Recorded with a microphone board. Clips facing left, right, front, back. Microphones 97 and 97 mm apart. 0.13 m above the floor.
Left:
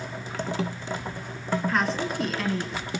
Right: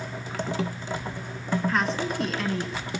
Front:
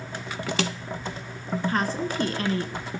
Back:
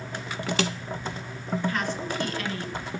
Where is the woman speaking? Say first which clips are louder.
Even, front 3 dB; straight ahead, 1.4 m.